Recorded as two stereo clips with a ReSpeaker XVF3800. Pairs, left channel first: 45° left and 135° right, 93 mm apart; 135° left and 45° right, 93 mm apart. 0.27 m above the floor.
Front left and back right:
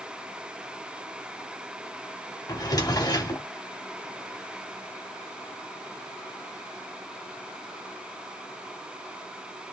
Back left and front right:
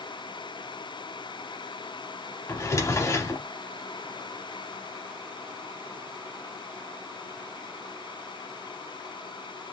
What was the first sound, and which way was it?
A drawer, 85° left.